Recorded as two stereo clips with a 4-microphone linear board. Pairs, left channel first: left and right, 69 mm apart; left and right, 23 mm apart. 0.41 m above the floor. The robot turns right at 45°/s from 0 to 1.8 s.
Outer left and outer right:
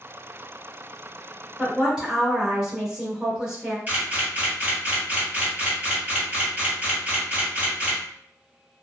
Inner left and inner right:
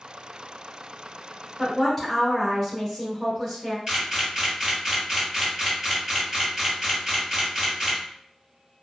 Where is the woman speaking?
10° right (ahead or behind), 0.9 m; by 3.8 s 15° right (ahead or behind), 0.9 m.